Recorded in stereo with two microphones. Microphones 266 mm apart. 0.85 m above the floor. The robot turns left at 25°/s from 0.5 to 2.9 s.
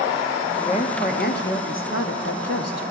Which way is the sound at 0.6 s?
155° left.